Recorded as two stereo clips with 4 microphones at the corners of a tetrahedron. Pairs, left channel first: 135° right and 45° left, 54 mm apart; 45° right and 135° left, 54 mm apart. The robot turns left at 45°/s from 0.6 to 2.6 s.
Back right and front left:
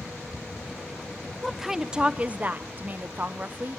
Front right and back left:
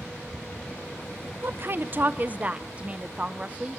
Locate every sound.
1.4 s a woman speaking: 135° left, 0.7 m; by 3.8 s 80° left, 0.7 m